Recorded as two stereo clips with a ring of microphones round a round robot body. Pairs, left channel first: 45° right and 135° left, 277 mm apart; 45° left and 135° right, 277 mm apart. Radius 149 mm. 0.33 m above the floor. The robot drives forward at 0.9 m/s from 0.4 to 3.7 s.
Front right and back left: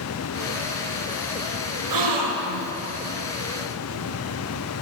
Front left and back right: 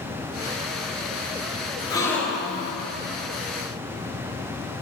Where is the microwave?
No microwave in this recording.